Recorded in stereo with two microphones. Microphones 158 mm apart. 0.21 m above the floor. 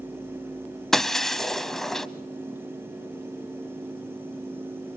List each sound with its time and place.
0.9 s breaking glass: centre (ahead or behind), 0.6 m